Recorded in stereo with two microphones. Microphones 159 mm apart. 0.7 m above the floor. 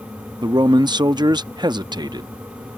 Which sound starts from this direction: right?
A man speaking, at 0.4 s.